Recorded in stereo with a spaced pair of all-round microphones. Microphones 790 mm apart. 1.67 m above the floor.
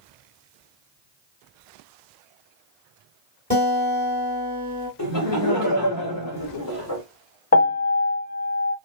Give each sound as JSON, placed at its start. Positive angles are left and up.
{"t": 3.5, "sound": "a guitar", "side_deg": -10, "distance_m": 1.8}
{"t": 5.0, "sound": "laughter", "side_deg": 25, "distance_m": 1.0}
{"t": 7.5, "sound": "a piano", "side_deg": 15, "distance_m": 0.5}